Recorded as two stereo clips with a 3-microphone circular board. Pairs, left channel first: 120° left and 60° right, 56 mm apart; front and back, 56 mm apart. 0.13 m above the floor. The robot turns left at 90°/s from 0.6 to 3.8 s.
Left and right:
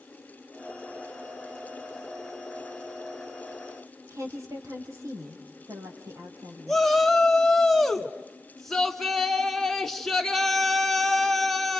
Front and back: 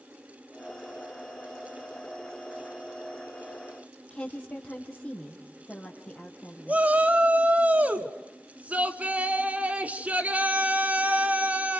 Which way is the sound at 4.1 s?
70° right.